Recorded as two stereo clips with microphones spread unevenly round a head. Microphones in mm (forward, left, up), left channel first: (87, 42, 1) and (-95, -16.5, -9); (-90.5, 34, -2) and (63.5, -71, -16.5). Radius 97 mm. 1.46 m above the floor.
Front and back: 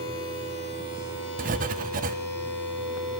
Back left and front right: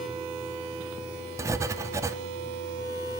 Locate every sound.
1.4 s writing: 110° right, 0.6 m